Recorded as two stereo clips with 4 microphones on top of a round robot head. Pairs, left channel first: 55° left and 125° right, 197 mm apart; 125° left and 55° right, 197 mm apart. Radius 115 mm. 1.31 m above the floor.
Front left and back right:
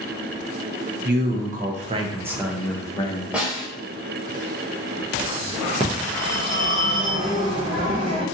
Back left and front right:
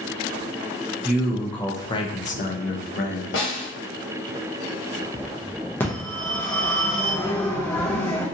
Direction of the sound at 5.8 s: 165° right.